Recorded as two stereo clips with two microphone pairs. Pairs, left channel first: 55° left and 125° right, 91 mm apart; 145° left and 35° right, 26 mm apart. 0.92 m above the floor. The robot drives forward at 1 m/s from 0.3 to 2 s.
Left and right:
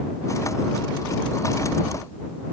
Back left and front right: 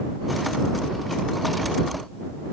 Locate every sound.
Only background noise.